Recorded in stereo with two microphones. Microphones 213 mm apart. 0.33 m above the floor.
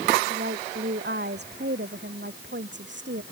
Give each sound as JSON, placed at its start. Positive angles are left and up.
{"t": 0.3, "sound": "a woman speaking", "side_deg": -50}